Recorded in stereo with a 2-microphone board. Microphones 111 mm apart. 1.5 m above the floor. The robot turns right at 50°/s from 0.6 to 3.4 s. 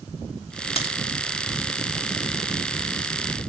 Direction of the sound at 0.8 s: 55° left (ahead or behind).